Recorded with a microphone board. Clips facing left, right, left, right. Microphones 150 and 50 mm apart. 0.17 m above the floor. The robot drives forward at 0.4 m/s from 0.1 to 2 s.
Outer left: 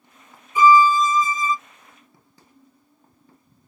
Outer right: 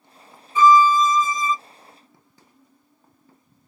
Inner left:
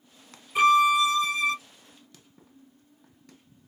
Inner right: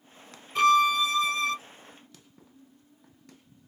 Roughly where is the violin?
Centre.